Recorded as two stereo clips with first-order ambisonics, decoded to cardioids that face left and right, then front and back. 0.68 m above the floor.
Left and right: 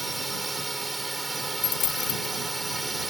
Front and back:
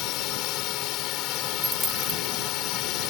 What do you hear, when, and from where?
0.0 s a drone: 10° right
1.6 s a dropped coin: 100° left